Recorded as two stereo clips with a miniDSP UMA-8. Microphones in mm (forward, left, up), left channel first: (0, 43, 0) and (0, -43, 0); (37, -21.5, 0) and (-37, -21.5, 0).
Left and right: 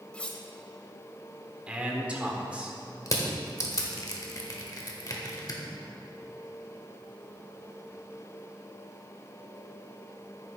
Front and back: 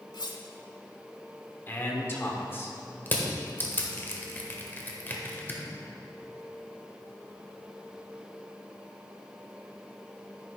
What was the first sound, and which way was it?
Cutlery clinking, 15° left.